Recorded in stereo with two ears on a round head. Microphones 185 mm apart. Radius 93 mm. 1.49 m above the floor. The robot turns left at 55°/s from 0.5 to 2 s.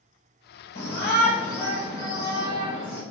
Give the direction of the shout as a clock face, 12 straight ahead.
10 o'clock.